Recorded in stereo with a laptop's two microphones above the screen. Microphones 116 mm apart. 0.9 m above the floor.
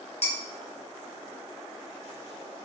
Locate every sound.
0.2 s dishes clattering: 60° left (ahead or behind), 1.1 m